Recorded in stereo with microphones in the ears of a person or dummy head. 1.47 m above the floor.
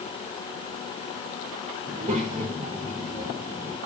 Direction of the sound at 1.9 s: 30° right (ahead or behind).